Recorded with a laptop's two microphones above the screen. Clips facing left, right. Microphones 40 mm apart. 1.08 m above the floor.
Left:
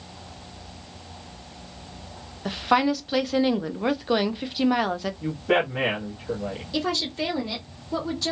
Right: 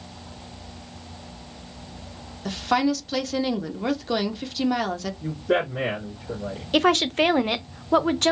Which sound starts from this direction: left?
A man speaking, at 5.2 s.